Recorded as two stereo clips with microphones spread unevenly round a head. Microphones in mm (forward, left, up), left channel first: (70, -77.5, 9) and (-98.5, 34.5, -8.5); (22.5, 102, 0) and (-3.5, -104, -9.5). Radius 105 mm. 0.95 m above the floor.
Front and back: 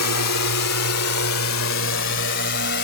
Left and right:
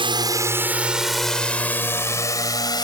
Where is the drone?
30° right; by 2.9 s 10° left.